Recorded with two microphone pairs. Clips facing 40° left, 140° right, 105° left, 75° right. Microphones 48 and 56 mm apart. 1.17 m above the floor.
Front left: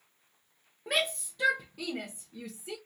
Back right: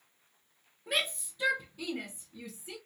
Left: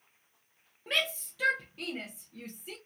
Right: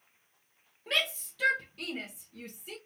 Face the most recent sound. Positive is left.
turn(degrees=25)